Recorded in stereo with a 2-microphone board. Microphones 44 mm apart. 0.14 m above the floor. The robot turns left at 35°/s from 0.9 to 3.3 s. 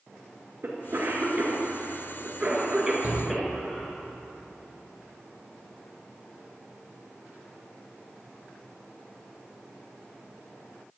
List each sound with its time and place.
0.6 s a cough: 55° right (ahead or behind), 1.8 m; by 3.9 s centre (ahead or behind), 1.8 m
3.0 s a shout: 45° right (ahead or behind), 1.9 m; by 3.2 s 40° right (ahead or behind), 1.9 m